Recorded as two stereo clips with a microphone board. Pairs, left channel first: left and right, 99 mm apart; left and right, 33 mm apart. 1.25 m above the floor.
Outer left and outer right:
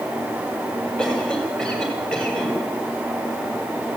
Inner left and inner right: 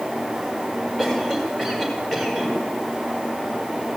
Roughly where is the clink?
I don't hear a clink.